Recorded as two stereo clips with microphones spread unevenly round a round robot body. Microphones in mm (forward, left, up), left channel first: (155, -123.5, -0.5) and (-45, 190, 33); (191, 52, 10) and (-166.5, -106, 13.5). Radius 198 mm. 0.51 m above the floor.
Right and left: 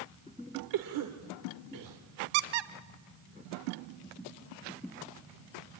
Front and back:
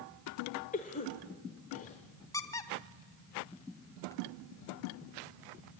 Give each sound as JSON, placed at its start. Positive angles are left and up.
{"t": 0.7, "sound": "a cough", "azimuth_deg": 95, "distance_m": 1.9}
{"t": 2.3, "sound": "a squeak", "azimuth_deg": 105, "distance_m": 1.1}